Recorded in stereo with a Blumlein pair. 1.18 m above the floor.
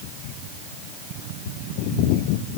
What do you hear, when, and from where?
Only background noise.